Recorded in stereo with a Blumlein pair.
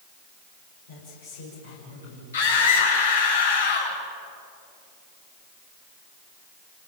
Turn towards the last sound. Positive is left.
turn(degrees=65)